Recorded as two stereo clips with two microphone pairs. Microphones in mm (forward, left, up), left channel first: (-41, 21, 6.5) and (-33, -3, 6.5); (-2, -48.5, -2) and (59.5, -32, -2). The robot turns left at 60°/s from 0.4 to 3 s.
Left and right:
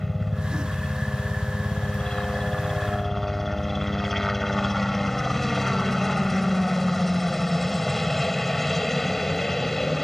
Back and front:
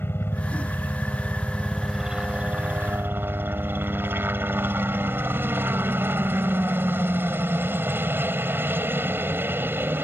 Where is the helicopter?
170° right; by 10.1 s 35° left.